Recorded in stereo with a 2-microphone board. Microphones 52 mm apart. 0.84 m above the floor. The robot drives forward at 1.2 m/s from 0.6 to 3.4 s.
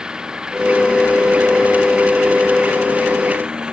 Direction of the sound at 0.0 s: 15° right (ahead or behind).